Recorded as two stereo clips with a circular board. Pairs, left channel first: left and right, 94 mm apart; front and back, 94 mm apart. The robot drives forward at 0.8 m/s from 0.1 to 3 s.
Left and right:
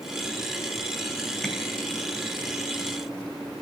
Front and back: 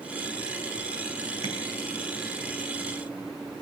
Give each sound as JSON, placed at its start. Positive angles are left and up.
{"t": 1.4, "sound": "tapping", "azimuth_deg": 170, "distance_m": 1.4}